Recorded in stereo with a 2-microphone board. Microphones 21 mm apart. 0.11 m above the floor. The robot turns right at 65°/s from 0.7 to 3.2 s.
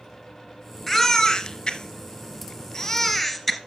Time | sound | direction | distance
0.9 | a baby crying | 20° left (ahead or behind) | 1.5 m